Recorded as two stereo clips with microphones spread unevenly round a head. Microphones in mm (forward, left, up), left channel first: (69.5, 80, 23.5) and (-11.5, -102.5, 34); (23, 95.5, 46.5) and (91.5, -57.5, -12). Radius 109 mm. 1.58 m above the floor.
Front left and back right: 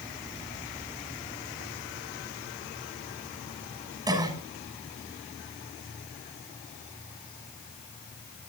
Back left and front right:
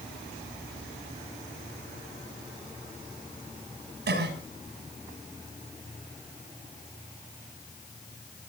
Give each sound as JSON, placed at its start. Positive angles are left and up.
{"t": 4.1, "sound": "a cough", "azimuth_deg": -40, "distance_m": 7.0}